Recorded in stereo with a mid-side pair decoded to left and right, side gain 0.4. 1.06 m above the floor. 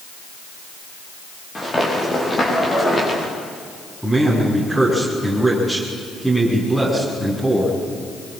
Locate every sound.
1.6 s running footsteps: 30° left, 9 m
4.0 s a man speaking: straight ahead, 8.5 m